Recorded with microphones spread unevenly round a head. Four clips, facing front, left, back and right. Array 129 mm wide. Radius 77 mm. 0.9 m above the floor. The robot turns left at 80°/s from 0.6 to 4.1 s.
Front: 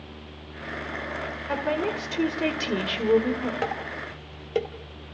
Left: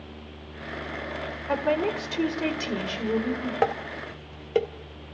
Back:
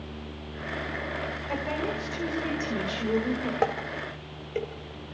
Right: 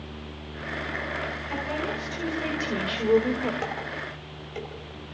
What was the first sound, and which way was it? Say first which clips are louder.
A woman speaking: left 8 dB, front 5 dB; 90° left.